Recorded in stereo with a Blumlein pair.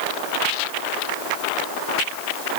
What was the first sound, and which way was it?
Only background noise.